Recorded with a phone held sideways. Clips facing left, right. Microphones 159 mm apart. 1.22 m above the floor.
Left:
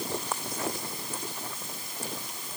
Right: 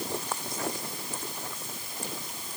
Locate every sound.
Only background noise.